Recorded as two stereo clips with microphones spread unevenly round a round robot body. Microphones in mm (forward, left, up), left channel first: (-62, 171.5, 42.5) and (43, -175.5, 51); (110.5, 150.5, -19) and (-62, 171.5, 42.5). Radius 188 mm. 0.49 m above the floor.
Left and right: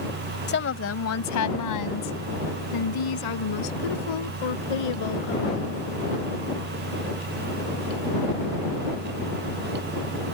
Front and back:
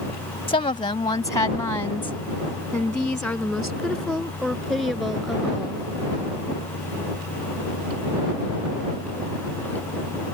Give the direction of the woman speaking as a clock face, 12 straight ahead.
11 o'clock.